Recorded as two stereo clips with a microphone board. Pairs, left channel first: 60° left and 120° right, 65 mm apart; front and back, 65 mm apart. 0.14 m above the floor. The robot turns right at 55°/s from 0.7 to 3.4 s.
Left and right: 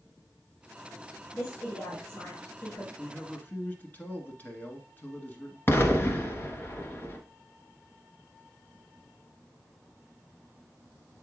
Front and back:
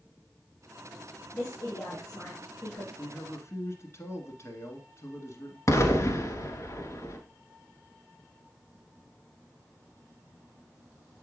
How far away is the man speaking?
About 1.4 m.